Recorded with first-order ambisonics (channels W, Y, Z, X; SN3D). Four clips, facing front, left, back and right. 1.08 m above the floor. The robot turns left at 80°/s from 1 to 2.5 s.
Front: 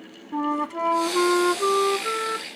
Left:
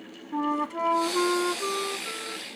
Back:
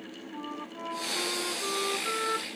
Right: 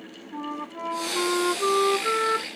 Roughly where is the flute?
Ahead left.